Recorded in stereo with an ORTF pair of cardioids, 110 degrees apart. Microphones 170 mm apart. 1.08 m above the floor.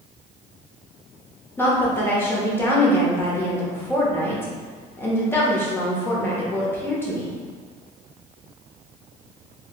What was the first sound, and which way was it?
A woman speaking, 15° left.